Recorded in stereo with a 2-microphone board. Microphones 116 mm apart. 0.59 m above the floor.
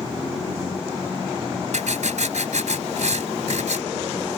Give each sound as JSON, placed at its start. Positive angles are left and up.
{"t": 1.7, "sound": "writing", "side_deg": -80}